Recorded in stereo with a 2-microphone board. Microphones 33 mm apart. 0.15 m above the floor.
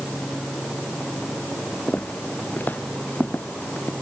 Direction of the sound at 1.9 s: 70° left (ahead or behind).